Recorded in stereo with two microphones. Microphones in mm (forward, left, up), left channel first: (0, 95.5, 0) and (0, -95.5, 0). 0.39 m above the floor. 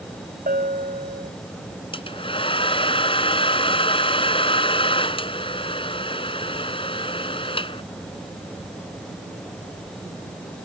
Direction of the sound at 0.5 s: 45° right (ahead or behind).